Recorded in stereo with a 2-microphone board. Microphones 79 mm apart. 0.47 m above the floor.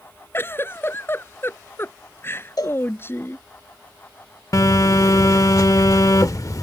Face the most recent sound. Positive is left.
turn(degrees=45)  # may be behind; listen again after turning